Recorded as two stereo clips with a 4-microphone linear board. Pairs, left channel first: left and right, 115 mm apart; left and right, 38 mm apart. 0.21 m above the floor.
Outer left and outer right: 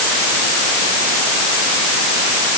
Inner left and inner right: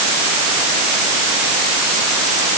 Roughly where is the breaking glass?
No breaking glass in this recording.